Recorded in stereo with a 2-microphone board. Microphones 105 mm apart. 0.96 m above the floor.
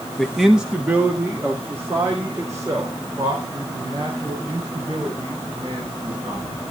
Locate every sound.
0.2 s a man speaking: 5° left (ahead or behind), 1.2 m; by 6.5 s 40° right (ahead or behind), 7 m